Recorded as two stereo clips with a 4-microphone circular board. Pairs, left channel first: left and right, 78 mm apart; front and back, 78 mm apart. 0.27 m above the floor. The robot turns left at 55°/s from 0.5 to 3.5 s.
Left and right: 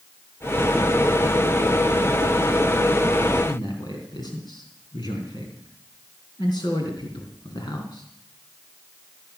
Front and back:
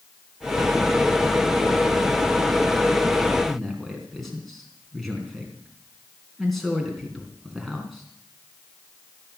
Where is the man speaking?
90° left, 3.5 m.